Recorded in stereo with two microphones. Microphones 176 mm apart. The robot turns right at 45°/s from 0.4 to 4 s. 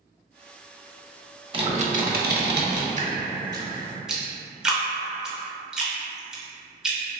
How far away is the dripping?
About 0.6 m.